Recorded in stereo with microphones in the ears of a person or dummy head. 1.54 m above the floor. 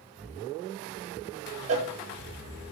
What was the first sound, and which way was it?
A cowbell, 40° right (ahead or behind).